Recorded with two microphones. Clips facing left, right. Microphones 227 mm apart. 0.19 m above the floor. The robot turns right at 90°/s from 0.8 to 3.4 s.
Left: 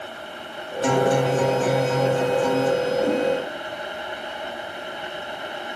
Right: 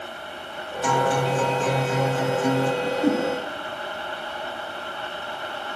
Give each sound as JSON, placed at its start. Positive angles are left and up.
{"t": 0.8, "sound": "a guitar", "side_deg": 25, "distance_m": 0.6}
{"t": 2.8, "sound": "a whoosh", "side_deg": -40, "distance_m": 1.4}